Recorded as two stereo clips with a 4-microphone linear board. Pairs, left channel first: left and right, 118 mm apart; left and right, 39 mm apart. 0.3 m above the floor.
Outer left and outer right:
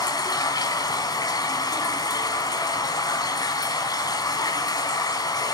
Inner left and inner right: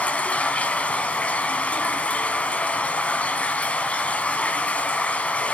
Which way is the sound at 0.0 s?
35° left (ahead or behind).